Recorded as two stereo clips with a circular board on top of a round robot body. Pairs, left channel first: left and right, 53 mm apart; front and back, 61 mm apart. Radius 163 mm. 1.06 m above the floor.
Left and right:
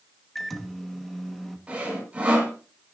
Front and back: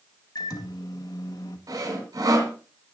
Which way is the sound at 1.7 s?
160° right.